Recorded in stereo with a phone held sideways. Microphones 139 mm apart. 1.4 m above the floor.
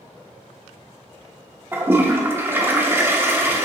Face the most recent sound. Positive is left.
turn(degrees=-15)  # may be behind; listen again after turning